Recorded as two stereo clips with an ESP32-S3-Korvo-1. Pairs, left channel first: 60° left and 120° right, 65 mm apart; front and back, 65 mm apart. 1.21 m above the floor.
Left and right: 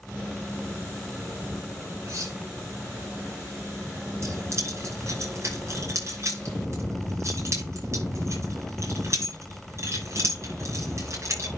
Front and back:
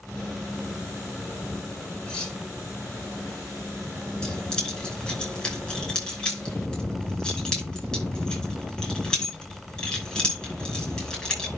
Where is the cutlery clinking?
80° right, 6 m.